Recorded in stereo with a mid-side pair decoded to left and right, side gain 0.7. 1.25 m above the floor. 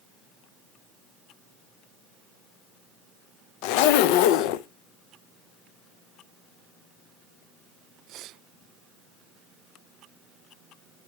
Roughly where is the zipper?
Left.